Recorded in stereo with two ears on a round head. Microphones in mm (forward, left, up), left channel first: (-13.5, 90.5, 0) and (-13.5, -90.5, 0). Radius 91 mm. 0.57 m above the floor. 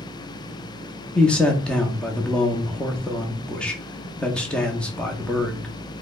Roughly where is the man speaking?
Centre.